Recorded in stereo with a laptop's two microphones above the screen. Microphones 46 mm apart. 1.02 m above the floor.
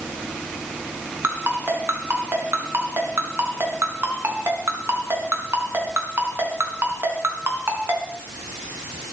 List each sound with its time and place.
1.2 s a ringtone: 60° right (ahead or behind), 4 m